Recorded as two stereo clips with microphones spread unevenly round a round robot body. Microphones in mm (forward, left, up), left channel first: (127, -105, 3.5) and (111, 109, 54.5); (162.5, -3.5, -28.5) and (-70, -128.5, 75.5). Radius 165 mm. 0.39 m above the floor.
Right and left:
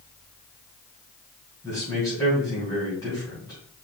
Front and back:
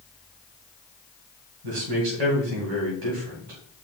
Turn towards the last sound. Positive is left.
turn(degrees=-160)